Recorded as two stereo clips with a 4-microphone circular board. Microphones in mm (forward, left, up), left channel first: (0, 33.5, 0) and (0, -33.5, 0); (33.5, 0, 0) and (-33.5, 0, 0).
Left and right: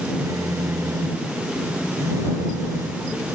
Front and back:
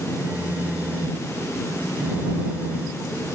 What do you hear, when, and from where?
0.2 s a phone buzzing: 115° right